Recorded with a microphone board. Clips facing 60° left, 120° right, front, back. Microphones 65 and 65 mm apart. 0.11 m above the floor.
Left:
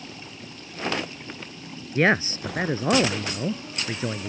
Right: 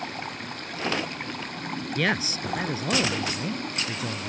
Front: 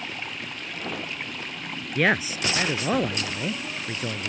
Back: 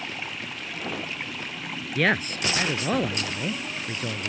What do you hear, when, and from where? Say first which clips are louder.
0.0 s running water: right 7 dB, even; 90° right
1.9 s a man speaking: left 6 dB, front 1 dB; 75° left